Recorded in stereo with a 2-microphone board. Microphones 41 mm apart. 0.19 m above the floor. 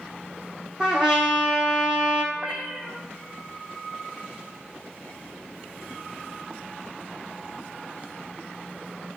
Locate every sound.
0.8 s a trumpet: 25° right (ahead or behind), 2 m
2.3 s a cat meowing: 20° right (ahead or behind), 1.7 m